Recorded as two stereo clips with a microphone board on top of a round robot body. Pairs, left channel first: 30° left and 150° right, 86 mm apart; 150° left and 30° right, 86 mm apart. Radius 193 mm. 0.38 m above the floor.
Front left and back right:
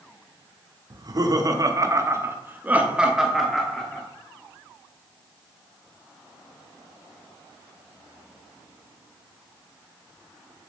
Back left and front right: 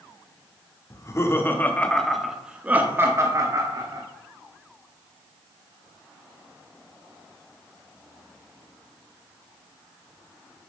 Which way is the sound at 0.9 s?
170° right.